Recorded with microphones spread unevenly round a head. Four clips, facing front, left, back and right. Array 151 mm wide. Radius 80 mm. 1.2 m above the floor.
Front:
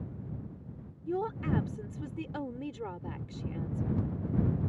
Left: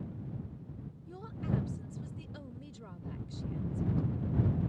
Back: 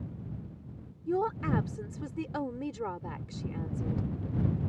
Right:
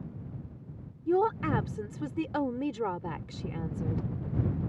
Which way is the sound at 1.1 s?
100° right.